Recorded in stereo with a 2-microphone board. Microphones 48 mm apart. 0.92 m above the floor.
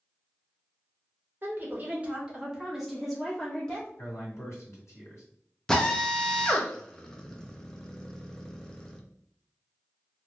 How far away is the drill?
About 0.6 m.